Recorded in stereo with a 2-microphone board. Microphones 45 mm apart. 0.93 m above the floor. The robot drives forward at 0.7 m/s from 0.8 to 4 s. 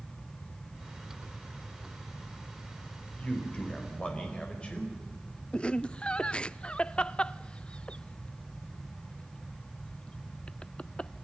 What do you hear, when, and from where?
3.2 s a man speaking: 30° left (ahead or behind), 4 m; by 5.0 s 25° left (ahead or behind), 4.5 m
5.5 s laughter: 20° left (ahead or behind), 0.5 m